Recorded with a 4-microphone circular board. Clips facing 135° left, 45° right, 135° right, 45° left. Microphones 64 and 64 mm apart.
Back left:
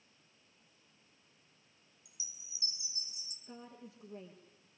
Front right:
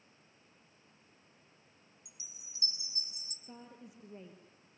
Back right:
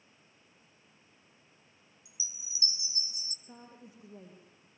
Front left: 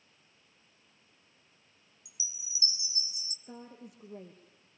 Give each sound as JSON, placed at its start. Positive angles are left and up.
{"t": 2.0, "sound": "a chime", "azimuth_deg": -75, "distance_m": 3.0}
{"t": 3.5, "sound": "a woman speaking", "azimuth_deg": 30, "distance_m": 3.5}